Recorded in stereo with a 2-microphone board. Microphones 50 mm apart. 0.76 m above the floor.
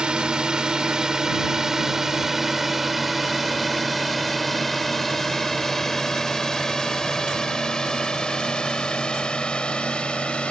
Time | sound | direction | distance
0.0 | a drone | 20° right (ahead or behind) | ?